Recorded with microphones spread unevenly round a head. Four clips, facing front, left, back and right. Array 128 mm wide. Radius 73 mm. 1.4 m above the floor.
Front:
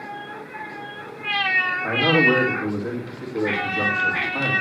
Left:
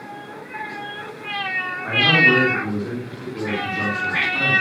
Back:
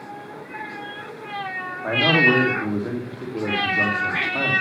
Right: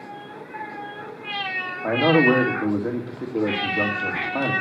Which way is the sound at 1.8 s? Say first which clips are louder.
Right 2 dB, back 1 dB; 95° right.